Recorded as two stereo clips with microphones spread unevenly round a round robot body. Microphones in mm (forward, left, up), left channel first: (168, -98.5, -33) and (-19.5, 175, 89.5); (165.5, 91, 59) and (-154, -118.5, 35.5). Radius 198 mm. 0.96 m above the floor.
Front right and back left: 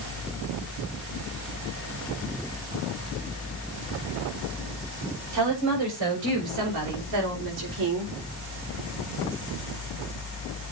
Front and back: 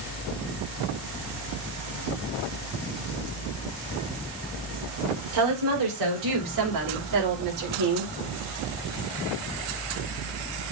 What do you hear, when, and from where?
5.3 s a woman speaking: 175° left, 6 m; by 8.1 s 170° left, 3.5 m